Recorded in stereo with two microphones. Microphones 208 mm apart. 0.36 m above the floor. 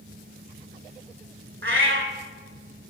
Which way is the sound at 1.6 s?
75° right (ahead or behind).